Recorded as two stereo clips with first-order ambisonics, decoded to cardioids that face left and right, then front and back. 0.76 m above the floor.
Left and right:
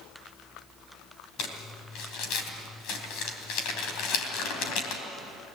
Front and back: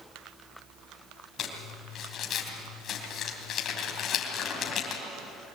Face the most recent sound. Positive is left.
turn(degrees=55)